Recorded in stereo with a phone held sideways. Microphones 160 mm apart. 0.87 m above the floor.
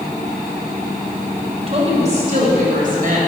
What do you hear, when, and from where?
1.7 s a woman speaking: 40° right (ahead or behind), 3 m; by 3.2 s 60° right (ahead or behind), 3.5 m